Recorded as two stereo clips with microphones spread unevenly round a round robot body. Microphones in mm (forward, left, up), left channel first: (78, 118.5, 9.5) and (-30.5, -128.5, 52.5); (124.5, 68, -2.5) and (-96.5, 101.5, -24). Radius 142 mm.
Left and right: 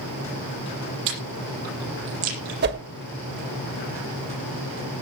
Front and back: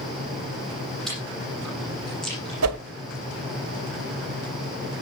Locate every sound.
1.1 s chewing: 95° right, 9 m
2.6 s a whoosh: 165° right, 1.4 m